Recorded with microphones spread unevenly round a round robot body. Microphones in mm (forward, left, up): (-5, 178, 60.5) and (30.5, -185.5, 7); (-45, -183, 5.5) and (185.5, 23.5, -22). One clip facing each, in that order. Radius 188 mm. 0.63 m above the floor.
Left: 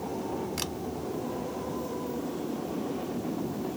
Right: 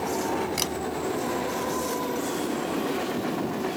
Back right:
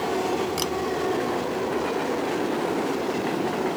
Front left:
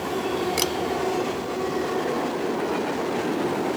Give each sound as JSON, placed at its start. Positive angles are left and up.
{"t": 0.6, "sound": "a camera shutter", "azimuth_deg": -10}